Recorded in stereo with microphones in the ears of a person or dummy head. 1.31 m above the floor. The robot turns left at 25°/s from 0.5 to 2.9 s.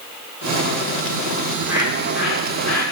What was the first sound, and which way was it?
A bird, 155° right.